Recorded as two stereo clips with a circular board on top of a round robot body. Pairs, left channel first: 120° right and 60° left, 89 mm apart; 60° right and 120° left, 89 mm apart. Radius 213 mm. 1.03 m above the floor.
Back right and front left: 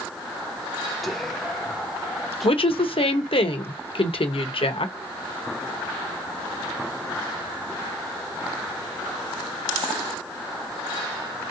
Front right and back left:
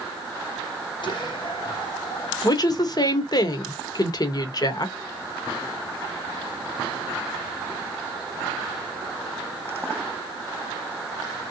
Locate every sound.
1.0 s whispering: 30° right, 1.3 m
2.4 s a woman speaking: 105° right, 0.9 m